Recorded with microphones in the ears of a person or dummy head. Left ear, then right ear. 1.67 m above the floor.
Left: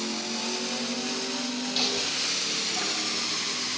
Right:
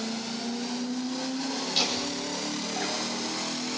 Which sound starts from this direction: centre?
Laughter, at 1.8 s.